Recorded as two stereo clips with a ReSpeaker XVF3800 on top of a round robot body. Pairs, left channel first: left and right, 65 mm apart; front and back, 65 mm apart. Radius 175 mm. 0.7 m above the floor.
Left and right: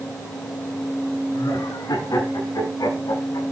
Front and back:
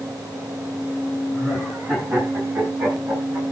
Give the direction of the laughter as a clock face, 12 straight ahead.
8 o'clock.